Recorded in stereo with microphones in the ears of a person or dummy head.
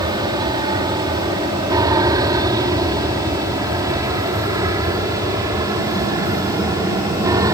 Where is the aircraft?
20° right (ahead or behind).